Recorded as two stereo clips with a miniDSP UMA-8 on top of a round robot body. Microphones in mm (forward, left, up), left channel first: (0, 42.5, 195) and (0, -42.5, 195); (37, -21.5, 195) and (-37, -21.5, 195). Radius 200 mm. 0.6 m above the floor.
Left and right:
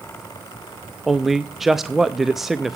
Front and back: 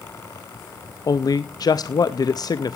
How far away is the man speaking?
About 0.8 m.